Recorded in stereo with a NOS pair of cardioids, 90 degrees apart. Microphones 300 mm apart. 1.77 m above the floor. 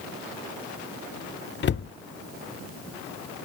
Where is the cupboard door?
35° left, 0.5 m.